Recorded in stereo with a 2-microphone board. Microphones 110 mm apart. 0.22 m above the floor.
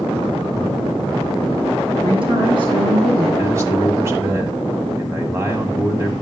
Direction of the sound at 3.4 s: 25° right (ahead or behind).